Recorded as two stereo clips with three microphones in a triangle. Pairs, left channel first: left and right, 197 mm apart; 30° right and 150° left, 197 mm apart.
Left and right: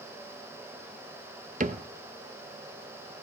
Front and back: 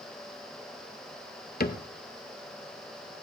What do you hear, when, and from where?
1.6 s a cupboard door: 55° right, 0.7 m